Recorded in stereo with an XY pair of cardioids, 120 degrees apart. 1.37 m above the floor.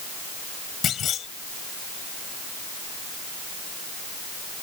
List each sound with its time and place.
0.8 s a clunk: 50° left